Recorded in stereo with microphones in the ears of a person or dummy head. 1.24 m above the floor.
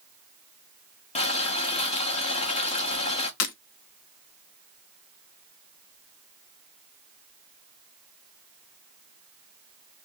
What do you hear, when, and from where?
1.1 s boiling: 40° left (ahead or behind), 1.0 m
3.4 s breaking glass: 55° left (ahead or behind), 0.8 m